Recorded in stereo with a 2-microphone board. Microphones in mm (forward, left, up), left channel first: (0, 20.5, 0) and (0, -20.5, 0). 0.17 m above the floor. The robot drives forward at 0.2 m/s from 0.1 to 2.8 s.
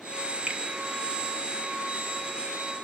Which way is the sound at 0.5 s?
25° right (ahead or behind).